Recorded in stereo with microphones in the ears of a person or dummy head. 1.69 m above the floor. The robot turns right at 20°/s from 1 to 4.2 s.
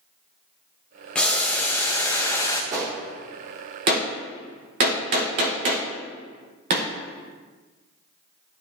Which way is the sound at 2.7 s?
15° right (ahead or behind).